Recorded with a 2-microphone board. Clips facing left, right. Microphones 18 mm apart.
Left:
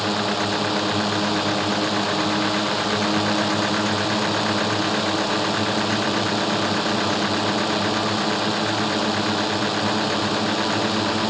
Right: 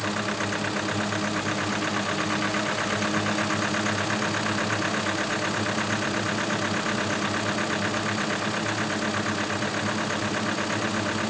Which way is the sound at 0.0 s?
50° left (ahead or behind).